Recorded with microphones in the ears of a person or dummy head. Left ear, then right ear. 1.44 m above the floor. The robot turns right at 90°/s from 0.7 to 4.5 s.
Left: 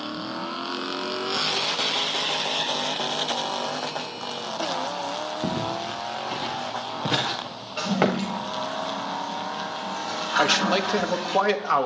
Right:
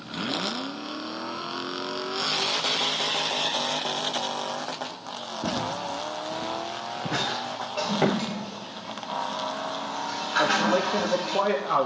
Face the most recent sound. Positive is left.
turn(degrees=60)  # may be behind; listen again after turning